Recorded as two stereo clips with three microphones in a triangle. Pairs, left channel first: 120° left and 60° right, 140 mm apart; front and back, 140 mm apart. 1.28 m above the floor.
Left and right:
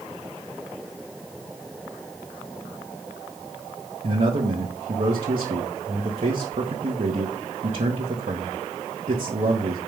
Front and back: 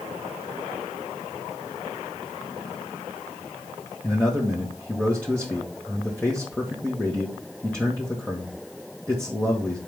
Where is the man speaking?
80° right, 1.4 m.